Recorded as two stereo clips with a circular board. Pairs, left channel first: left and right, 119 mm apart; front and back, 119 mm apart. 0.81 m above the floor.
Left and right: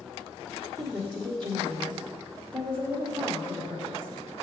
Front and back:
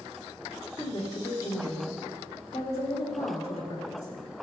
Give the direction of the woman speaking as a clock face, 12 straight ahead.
2 o'clock.